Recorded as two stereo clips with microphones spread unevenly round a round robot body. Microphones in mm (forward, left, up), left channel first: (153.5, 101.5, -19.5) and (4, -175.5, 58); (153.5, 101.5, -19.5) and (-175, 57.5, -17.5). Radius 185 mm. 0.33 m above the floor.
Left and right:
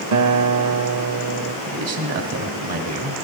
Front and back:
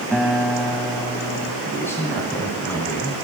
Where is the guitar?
80° right, 0.9 m.